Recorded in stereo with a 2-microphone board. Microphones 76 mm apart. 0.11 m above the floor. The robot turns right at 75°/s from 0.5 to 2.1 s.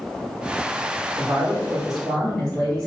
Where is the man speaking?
55° right, 1.5 m; by 2.9 s 15° left, 1.5 m.